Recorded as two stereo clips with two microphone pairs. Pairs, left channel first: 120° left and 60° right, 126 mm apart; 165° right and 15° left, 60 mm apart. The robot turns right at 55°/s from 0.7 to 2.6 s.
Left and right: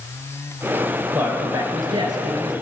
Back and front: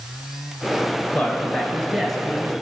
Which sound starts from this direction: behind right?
A man speaking, at 1.1 s.